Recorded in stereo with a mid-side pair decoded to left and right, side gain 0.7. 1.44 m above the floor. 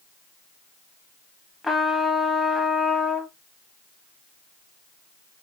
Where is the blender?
I don't hear a blender.